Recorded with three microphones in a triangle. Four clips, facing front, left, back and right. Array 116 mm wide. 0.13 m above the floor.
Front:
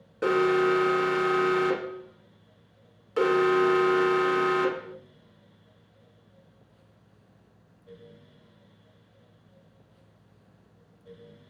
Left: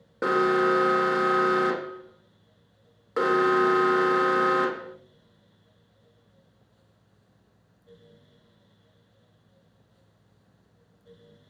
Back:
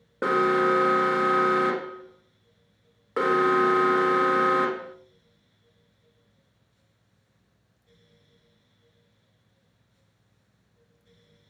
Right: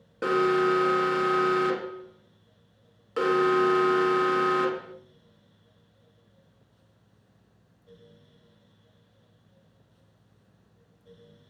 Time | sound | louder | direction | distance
0.2 | an alarm | left 1 dB, back 1 dB | 150° left | 1.8 m